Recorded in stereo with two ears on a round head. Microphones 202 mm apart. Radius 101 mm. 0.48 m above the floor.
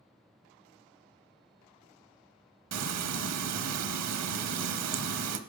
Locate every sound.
2.7 s frying: 85° right, 0.8 m